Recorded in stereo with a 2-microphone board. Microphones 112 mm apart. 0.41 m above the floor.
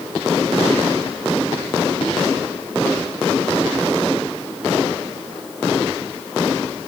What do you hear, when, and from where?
Only background noise.